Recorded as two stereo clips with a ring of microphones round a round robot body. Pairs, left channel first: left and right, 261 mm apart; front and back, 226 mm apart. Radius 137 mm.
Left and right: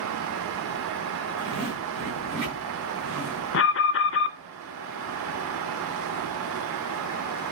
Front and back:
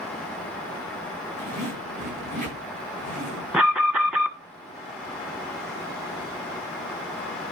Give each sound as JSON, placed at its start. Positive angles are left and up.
{"t": 1.4, "sound": "a zipper", "azimuth_deg": -115, "distance_m": 7.5}
{"t": 3.5, "sound": "an alarm", "azimuth_deg": 95, "distance_m": 1.4}